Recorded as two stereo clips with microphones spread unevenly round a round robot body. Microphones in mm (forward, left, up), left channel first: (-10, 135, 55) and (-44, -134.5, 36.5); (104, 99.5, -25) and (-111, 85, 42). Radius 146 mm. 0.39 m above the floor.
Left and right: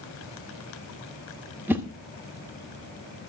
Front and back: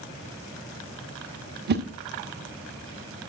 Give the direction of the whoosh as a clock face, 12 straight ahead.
5 o'clock.